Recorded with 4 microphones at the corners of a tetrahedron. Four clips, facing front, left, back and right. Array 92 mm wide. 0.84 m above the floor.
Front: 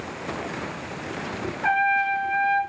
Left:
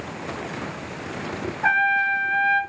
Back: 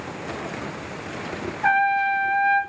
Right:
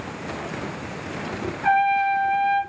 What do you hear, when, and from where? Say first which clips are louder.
1.6 s a trumpet: right 1 dB, back 2 dB; 125° left, 1.9 m